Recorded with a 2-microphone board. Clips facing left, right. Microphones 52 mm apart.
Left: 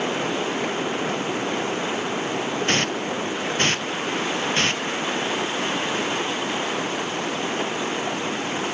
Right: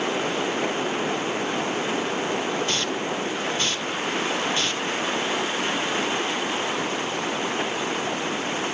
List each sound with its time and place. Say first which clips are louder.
2.7 s a hiss: left 3 dB; 50° left (ahead or behind)